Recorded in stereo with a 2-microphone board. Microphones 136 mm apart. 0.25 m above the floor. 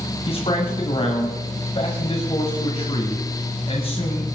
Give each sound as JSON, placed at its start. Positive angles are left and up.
{"t": 0.3, "sound": "a man speaking", "side_deg": 45, "distance_m": 1.8}